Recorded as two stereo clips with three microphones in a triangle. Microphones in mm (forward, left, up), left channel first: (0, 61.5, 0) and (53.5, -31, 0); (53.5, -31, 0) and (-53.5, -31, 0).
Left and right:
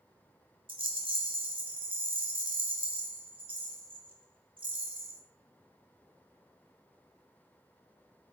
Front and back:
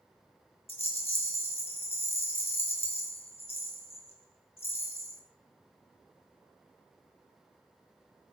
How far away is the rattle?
About 2.5 m.